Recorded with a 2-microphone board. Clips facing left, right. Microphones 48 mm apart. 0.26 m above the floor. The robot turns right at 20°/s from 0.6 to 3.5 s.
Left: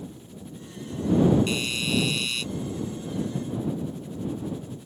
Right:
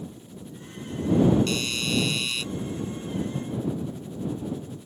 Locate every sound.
1.5 s a doorbell: 15° left (ahead or behind); by 2.4 s centre (ahead or behind)